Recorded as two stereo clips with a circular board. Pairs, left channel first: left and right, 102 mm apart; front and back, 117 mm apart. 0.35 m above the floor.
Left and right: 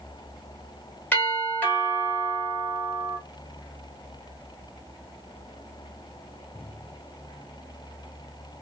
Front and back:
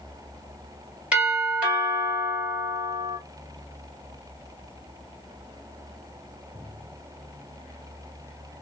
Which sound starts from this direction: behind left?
A doorbell, at 1.1 s.